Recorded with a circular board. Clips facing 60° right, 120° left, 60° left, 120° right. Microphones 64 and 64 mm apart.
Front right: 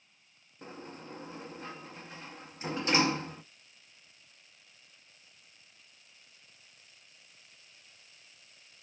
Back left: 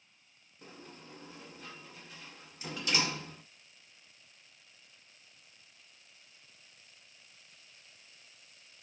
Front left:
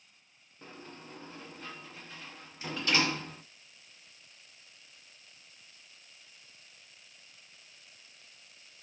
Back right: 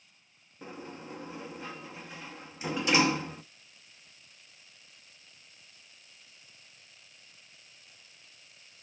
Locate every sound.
0.6 s a sliding door: 60° right, 0.5 m